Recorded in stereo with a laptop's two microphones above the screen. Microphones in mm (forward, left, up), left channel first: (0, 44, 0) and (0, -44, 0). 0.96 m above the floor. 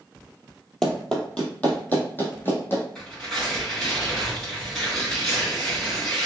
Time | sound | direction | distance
0.8 | running footsteps | 5° left (ahead or behind) | 1.0 m
3.0 | tearing paper | 5° left (ahead or behind) | 1.9 m